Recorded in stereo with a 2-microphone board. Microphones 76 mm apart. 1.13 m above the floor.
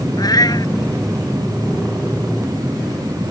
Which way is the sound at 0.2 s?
55° left (ahead or behind).